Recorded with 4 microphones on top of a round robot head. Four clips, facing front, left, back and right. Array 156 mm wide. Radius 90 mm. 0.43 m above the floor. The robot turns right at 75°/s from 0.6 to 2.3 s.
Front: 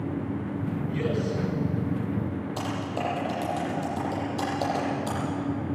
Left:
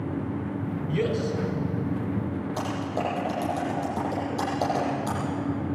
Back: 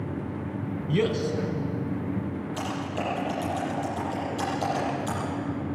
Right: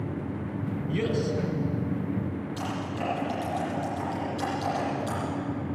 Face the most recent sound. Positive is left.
turn(degrees=60)